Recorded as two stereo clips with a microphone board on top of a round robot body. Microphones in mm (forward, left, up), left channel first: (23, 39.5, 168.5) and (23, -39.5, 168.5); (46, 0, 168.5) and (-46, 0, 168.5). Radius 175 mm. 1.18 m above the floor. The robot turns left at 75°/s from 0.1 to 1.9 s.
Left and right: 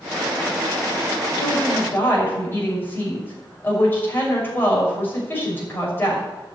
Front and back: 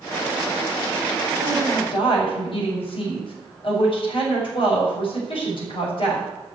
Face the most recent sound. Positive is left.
turn(degrees=25)